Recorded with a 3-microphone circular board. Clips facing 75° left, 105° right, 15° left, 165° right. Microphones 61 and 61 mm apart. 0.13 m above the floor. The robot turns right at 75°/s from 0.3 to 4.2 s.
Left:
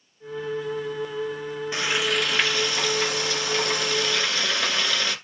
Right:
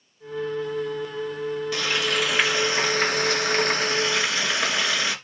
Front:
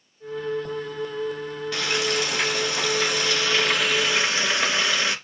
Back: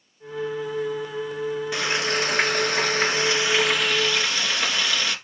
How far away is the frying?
About 1.4 m.